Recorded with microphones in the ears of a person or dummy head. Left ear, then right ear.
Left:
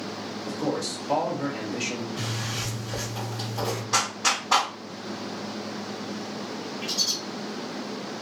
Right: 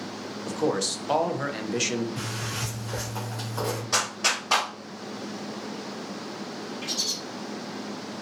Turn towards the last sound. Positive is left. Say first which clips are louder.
# left 2 dB
turn(degrees=-10)  # may be behind; listen again after turning